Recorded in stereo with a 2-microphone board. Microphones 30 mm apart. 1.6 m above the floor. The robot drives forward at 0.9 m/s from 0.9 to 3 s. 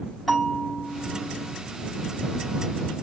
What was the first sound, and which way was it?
A bell, centre (ahead or behind).